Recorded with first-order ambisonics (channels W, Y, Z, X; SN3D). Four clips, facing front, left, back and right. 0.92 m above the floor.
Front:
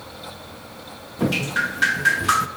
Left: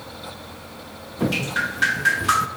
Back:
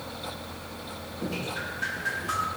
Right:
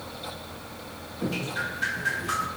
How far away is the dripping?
About 0.6 m.